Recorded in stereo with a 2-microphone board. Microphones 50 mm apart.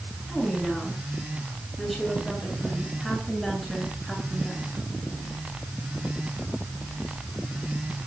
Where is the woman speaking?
5° left (ahead or behind), 9.5 m.